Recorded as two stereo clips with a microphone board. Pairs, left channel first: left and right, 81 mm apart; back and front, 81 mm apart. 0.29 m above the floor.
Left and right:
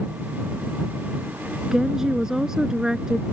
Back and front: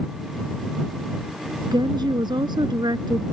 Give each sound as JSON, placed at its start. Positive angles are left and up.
{"t": 1.7, "sound": "a woman speaking", "azimuth_deg": -5}